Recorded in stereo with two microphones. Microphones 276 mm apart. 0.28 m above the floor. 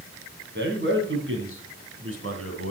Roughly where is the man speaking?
Right.